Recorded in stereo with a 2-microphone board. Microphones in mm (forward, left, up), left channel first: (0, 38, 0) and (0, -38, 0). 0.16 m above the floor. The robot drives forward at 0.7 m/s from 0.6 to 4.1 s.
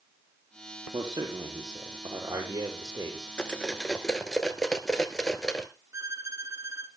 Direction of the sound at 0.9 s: 65° right (ahead or behind).